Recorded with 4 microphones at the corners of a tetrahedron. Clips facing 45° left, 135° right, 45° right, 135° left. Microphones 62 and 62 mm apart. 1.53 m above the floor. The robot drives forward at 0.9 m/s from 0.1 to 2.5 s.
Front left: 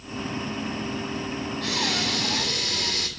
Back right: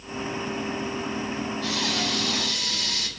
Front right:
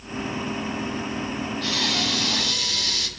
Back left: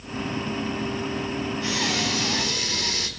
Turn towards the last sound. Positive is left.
turn(degrees=80)